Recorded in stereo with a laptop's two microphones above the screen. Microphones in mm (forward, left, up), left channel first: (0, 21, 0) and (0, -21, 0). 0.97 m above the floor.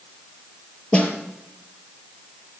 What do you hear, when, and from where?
0.9 s a snare drum: 30° left (ahead or behind), 4.5 m